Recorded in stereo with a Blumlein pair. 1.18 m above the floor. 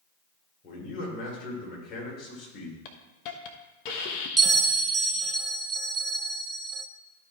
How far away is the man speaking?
About 4.5 m.